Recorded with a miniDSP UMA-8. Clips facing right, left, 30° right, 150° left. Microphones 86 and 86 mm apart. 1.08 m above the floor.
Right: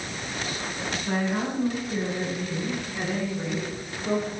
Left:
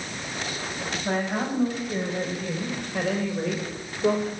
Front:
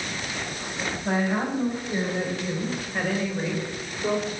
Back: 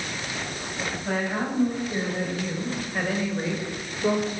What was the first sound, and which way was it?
A woman speaking, 45° left.